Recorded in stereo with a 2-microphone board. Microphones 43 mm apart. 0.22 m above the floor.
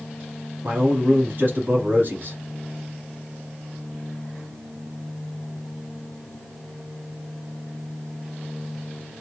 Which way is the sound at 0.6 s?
50° right (ahead or behind).